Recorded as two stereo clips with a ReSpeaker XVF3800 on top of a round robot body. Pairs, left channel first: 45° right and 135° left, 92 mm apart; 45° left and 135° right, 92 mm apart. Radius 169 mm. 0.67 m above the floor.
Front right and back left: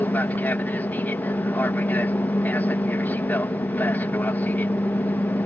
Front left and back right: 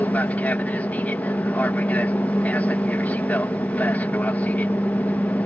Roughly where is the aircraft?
Ahead.